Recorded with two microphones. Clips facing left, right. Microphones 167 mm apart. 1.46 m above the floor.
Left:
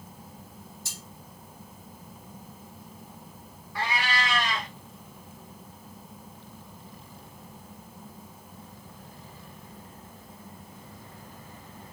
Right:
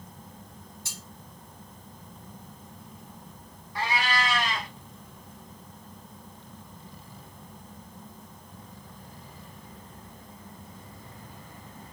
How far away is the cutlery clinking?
About 1.1 m.